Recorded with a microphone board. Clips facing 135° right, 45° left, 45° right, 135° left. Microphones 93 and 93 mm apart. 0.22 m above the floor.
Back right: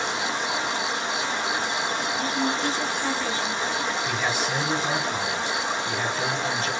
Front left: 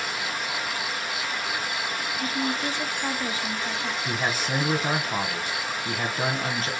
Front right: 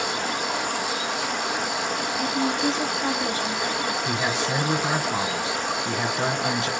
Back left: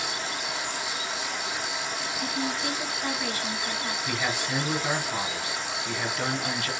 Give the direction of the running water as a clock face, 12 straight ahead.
2 o'clock.